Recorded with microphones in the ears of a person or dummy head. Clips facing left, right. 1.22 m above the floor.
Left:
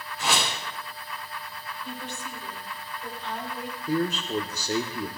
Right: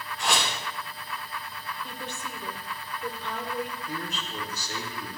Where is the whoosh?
Centre (ahead or behind), 3.5 m.